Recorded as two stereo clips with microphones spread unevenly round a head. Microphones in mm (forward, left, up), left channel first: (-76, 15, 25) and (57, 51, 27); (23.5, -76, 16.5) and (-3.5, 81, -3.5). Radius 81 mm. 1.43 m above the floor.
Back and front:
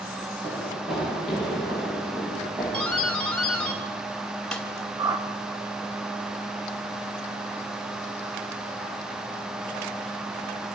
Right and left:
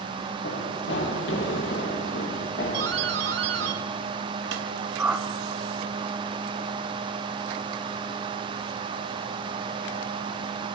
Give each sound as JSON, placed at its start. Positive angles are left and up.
{"t": 0.4, "sound": "running footsteps", "azimuth_deg": -70, "distance_m": 7.0}
{"t": 2.7, "sound": "a doorbell", "azimuth_deg": 110, "distance_m": 3.5}
{"t": 5.0, "sound": "a whoosh", "azimuth_deg": 15, "distance_m": 1.3}